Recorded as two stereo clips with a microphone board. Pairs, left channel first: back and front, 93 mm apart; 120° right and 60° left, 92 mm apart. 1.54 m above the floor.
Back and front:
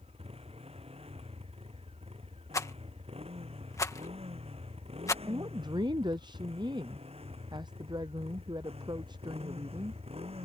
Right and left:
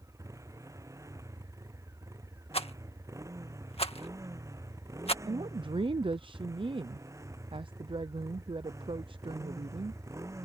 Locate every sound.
0.0 s a motorcycle: straight ahead
2.5 s a rattle: 120° right
5.2 s a woman speaking: 40° left